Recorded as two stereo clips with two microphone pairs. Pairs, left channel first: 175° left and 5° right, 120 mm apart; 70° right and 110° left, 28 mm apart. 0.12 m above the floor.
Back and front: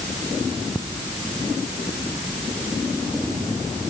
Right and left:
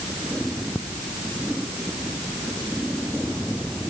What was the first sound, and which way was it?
Only background noise.